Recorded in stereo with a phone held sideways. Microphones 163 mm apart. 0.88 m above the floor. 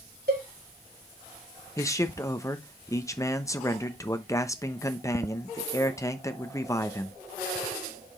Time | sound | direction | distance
0.3 | a cowbell | 70° right (ahead or behind) | 2.5 m
1.8 | a man speaking | 20° left (ahead or behind) | 0.9 m